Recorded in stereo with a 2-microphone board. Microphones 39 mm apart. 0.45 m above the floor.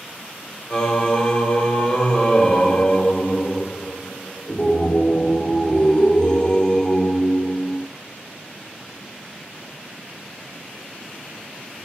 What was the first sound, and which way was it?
Singing, 25° left (ahead or behind).